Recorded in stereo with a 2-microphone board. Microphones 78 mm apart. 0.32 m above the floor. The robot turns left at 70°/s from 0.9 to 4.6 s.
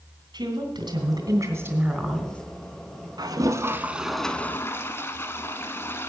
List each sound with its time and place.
0.3 s a woman speaking: 95° right, 2.5 m; by 2.4 s 160° left, 2.5 m
3.2 s a toilet flushing: 110° right, 0.9 m; by 6.1 s 150° left, 0.9 m